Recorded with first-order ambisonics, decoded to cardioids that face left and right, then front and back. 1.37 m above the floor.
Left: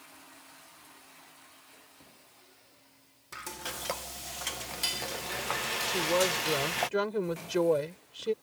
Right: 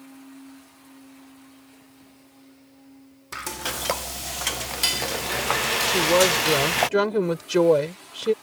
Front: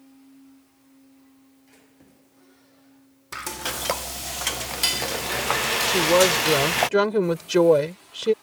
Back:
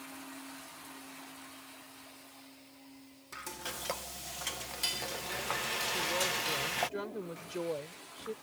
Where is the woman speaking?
30° right.